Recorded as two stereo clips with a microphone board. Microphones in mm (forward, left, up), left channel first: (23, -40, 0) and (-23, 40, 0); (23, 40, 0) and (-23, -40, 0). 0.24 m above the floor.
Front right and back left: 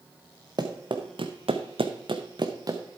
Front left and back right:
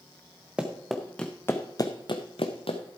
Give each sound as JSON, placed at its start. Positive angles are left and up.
{"t": 0.6, "sound": "running footsteps", "azimuth_deg": 160, "distance_m": 1.4}